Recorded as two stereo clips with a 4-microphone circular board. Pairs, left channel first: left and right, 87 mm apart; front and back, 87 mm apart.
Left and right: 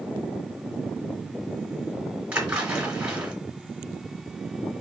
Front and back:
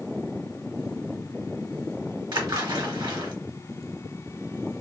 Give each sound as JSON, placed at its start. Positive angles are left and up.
{"t": 2.3, "sound": "a splash", "azimuth_deg": -165, "distance_m": 1.2}